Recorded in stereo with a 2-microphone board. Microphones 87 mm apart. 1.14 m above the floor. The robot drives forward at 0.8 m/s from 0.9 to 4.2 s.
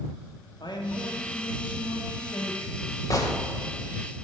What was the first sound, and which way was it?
A man speaking, 65° left (ahead or behind).